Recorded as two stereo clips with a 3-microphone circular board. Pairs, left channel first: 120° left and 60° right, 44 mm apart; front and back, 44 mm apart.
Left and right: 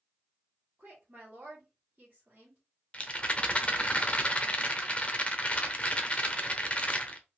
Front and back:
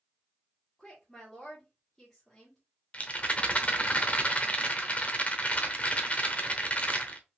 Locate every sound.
0.8 s a woman speaking: 80° right, 1.3 m
2.9 s a rattle: 55° left, 0.6 m